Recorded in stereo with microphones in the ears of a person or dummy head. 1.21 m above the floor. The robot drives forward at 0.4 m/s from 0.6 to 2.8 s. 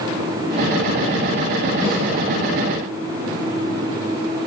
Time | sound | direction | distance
1.8 | a snare drum | 20° right (ahead or behind) | 8.5 m